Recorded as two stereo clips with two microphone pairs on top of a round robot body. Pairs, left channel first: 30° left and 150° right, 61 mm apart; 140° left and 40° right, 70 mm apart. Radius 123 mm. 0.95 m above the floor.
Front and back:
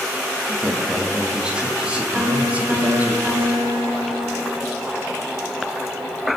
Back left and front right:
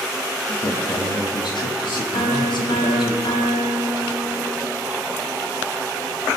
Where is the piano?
155° left, 5.5 m.